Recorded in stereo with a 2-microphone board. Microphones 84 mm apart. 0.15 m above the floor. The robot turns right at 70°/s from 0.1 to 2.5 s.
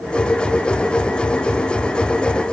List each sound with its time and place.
Only background noise.